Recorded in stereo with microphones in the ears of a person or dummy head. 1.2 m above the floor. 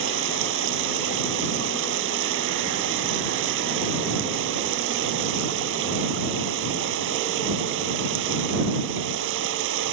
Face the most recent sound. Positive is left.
turn(degrees=-70)  # may be behind; listen again after turning